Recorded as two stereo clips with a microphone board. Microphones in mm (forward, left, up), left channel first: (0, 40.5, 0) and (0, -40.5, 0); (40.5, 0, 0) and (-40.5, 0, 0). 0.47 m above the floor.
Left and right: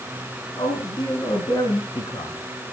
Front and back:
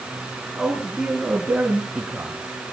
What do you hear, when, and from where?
0.6 s a man speaking: 95° left, 3.5 m; by 2.4 s 105° left, 4.5 m